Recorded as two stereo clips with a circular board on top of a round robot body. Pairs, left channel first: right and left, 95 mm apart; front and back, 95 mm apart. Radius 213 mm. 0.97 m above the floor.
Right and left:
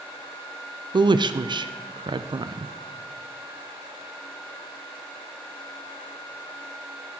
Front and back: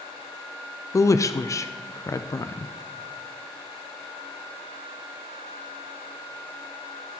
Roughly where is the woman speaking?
Ahead left.